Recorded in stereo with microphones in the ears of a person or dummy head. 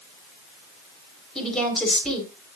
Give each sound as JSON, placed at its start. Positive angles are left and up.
{"t": 1.4, "sound": "a woman speaking", "side_deg": 5, "distance_m": 8.5}